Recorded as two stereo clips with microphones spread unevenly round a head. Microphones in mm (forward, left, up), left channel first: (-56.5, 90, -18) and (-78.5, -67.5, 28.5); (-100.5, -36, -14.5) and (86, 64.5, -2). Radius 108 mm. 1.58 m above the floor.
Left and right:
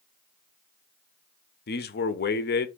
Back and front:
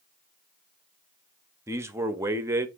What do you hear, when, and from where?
1.7 s a man speaking: 100° left, 0.6 m